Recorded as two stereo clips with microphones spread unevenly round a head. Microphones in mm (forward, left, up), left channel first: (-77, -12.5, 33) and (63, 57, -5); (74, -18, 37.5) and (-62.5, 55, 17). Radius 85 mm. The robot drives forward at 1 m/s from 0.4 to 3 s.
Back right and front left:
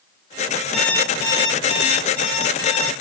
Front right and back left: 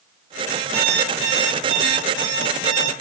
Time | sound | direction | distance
0.7 | an alarm clock | 125° left | 1.2 m